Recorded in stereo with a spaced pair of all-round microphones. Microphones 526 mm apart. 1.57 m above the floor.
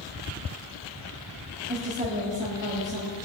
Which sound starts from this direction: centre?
A woman speaking, at 1.7 s.